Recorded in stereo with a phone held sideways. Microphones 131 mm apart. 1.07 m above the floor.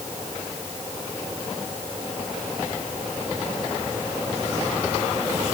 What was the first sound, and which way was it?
Only background noise.